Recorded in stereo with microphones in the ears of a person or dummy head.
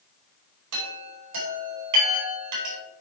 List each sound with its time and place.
0.7 s a chime: 85° right, 5 m